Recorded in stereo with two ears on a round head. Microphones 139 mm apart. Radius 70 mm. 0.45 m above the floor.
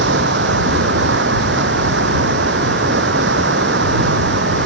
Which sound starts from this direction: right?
Running water, at 0.0 s.